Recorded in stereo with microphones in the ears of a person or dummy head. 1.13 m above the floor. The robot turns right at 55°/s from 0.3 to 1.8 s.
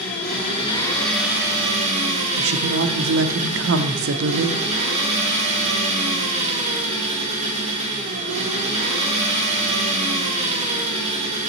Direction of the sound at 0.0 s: 135° left.